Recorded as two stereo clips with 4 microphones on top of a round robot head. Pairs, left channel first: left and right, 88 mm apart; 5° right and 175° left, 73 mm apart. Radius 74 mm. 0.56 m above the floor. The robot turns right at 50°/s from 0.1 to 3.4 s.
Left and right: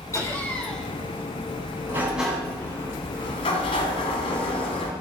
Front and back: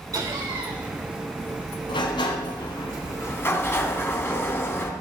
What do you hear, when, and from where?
0.1 s laughter: 145° left, 4.5 m; by 0.9 s straight behind, 4.5 m
1.9 s a sliding door: 20° right, 2 m; by 4.9 s 55° left, 2 m